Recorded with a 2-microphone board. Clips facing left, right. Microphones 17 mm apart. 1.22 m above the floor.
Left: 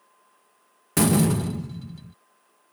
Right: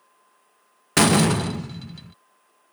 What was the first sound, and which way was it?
A door slam, 45° right (ahead or behind).